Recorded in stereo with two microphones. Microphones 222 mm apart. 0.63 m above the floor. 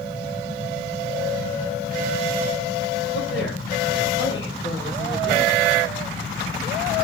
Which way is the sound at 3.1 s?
65° left (ahead or behind).